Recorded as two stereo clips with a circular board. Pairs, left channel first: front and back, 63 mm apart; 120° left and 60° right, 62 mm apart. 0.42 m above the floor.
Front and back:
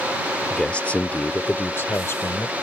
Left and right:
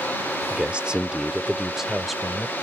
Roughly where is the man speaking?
Ahead right.